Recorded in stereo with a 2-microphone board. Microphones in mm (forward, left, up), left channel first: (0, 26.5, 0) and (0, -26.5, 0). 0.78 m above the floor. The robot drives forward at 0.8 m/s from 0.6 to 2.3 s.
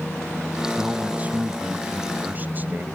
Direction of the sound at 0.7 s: 25° right (ahead or behind).